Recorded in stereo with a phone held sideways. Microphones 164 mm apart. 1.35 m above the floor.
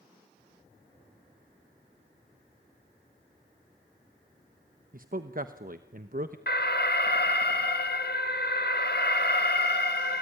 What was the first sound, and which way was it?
A man speaking, 55° right (ahead or behind).